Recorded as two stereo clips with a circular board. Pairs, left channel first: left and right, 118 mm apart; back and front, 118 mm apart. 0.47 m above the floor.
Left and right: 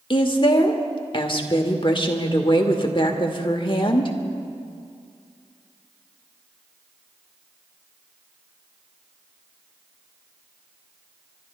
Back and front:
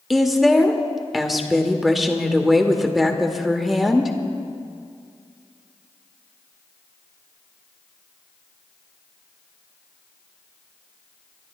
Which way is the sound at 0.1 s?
90° left.